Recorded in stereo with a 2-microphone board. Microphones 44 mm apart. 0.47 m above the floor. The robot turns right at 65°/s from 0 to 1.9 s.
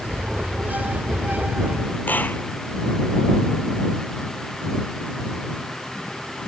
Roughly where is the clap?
Left.